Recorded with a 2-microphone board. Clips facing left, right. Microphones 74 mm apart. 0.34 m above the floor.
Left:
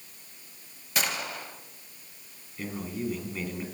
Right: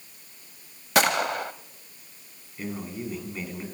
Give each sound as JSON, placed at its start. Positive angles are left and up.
{"t": 0.9, "sound": "a gunshot", "side_deg": -65, "distance_m": 0.7}
{"t": 2.6, "sound": "a man speaking", "side_deg": -5, "distance_m": 3.0}